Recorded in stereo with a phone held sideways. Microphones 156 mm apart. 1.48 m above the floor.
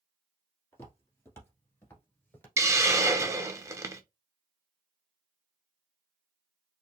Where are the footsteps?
20° left (ahead or behind), 1.8 m; by 2.5 s 15° left (ahead or behind), 1.4 m.